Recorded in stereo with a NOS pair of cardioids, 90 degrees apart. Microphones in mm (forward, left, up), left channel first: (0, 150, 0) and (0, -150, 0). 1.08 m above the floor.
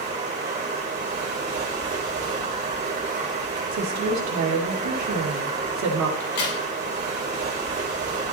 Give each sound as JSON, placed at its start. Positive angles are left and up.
{"t": 0.0, "sound": "running water", "azimuth_deg": -35, "distance_m": 3.0}
{"t": 3.7, "sound": "a woman speaking", "azimuth_deg": -65, "distance_m": 2.5}
{"t": 6.2, "sound": "a crack", "azimuth_deg": 70, "distance_m": 7.0}